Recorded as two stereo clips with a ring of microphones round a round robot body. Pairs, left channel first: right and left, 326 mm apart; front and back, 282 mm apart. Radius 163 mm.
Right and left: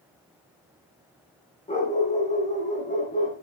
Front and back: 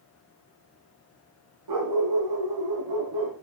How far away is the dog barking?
About 9.5 m.